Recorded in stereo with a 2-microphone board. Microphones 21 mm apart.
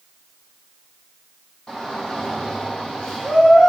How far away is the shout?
About 5.5 m.